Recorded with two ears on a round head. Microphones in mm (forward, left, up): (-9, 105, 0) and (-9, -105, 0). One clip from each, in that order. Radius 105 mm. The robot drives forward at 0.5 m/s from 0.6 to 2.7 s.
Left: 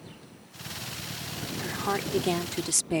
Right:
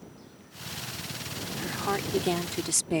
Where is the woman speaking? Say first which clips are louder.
Even; centre (ahead or behind).